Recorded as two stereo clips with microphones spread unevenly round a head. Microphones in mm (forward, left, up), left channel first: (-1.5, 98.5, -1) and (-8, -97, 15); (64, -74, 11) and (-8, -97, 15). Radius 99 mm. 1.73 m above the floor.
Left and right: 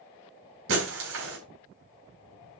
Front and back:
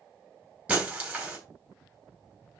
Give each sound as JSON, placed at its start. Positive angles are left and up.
{"t": 0.7, "sound": "breaking glass", "azimuth_deg": -90, "distance_m": 4.0}